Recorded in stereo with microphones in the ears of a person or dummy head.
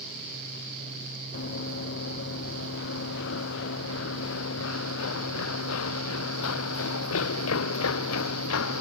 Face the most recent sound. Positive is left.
turn(degrees=80)